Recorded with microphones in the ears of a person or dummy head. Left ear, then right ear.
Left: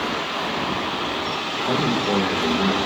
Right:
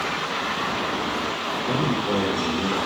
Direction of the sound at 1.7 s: 55° left (ahead or behind).